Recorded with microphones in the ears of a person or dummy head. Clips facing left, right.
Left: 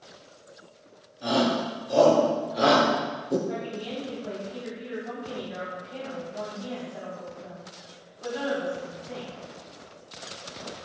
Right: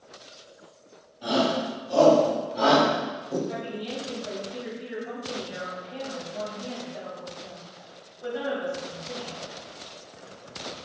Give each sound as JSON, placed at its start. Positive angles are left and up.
{"t": 1.2, "sound": "a shout", "side_deg": 25, "distance_m": 1.8}
{"t": 3.5, "sound": "a woman speaking", "side_deg": 0, "distance_m": 1.8}